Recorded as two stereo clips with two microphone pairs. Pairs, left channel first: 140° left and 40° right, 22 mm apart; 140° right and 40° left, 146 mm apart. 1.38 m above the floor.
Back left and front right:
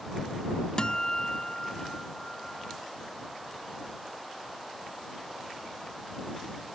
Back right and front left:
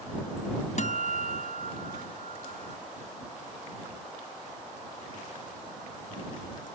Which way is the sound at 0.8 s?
170° right.